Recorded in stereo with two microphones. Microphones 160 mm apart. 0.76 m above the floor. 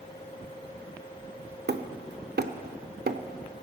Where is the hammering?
80° right, 0.9 m.